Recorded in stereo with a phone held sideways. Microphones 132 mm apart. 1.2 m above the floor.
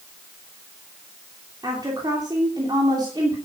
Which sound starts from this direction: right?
A woman speaking, at 1.6 s.